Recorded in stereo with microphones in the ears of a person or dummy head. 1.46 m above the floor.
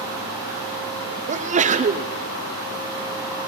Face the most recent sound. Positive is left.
turn(degrees=-25)  # may be behind; listen again after turning